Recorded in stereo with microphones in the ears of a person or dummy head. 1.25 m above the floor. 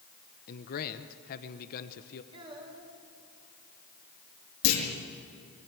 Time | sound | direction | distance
0.5 | a man speaking | 50° left (ahead or behind) | 1.0 m
2.3 | a child speaking | 25° right (ahead or behind) | 4.5 m
4.6 | a clunk | 75° left (ahead or behind) | 5 m